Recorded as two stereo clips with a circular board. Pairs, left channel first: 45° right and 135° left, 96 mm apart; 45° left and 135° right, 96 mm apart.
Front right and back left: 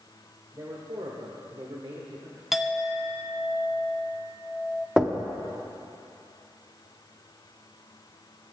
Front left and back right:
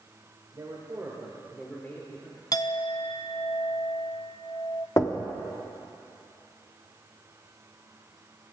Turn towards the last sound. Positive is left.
turn(degrees=60)